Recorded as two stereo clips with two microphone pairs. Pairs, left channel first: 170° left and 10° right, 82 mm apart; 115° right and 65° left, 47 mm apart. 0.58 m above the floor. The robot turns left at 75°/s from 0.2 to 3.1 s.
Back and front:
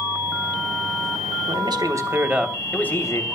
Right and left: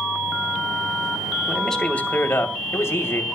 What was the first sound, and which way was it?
A man speaking, 20° right.